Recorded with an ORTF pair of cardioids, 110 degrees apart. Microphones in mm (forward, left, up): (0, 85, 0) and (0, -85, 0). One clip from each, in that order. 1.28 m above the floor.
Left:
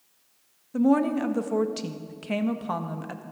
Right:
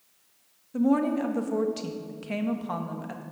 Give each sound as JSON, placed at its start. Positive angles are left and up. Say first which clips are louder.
{"t": 0.7, "sound": "a woman speaking", "louder": "left 2 dB", "azimuth_deg": 20, "distance_m": 1.2}